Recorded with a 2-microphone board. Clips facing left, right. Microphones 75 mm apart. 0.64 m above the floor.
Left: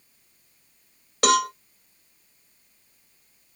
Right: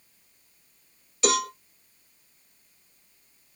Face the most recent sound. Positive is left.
turn(degrees=75)  # may be behind; listen again after turning